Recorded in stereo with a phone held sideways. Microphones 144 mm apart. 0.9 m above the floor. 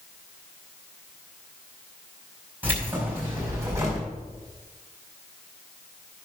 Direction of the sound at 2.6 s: 10° right (ahead or behind).